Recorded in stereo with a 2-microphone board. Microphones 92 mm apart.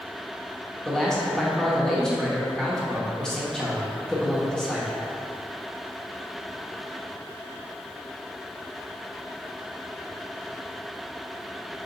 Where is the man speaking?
5° left (ahead or behind), 0.8 m.